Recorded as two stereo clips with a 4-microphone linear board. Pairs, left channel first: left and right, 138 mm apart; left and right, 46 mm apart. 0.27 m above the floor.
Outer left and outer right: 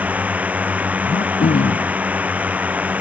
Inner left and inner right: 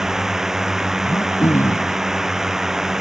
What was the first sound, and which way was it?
A drone, 10° right (ahead or behind).